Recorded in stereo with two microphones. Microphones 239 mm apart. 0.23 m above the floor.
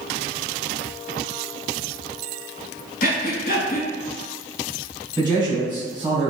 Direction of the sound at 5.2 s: 20° right (ahead or behind).